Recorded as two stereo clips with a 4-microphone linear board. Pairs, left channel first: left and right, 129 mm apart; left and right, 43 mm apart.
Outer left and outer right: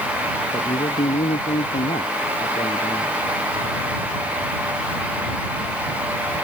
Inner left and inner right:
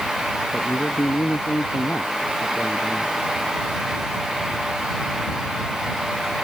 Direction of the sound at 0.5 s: 65° left (ahead or behind).